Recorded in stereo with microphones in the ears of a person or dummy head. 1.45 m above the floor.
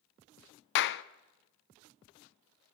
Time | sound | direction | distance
0.8 | a clap | 60° left (ahead or behind) | 0.7 m